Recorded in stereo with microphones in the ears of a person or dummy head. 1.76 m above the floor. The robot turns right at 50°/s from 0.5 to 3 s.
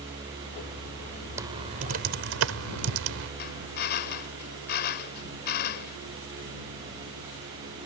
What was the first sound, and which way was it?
Typing on a keyboard, 20° right (ahead or behind).